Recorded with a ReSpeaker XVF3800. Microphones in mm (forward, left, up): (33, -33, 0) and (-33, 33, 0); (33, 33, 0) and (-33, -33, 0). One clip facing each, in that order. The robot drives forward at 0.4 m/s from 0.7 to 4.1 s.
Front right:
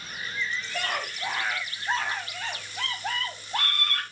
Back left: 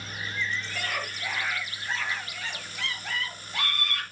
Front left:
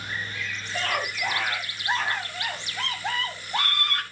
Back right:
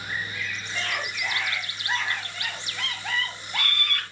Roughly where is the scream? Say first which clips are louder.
Front right 2 dB, front left 4 dB; ahead.